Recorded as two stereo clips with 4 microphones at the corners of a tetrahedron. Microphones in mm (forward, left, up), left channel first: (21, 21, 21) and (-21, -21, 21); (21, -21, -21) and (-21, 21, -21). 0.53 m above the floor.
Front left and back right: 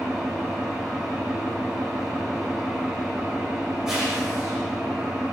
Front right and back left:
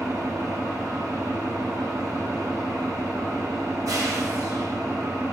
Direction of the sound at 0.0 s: 145° left.